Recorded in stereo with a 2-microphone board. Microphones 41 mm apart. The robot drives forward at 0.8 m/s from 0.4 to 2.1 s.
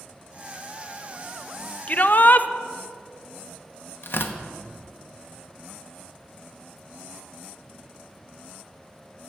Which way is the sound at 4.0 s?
60° left (ahead or behind).